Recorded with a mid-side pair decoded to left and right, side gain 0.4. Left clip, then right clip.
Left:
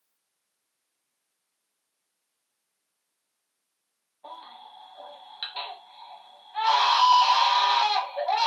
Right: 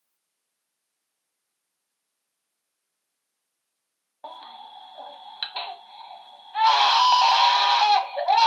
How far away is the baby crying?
About 0.9 m.